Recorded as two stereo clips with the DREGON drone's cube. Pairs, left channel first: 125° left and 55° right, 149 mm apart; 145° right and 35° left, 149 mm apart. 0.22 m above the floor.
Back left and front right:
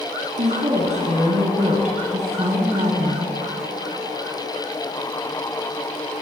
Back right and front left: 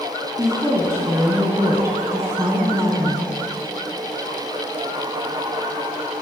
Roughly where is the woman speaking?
Ahead right.